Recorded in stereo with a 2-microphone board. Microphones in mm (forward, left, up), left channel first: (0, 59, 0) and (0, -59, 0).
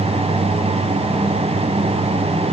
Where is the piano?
No piano in this recording.